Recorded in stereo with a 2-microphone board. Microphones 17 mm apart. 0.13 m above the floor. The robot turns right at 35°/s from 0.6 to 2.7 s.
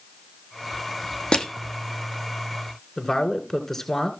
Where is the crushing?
80° left, 1.3 m.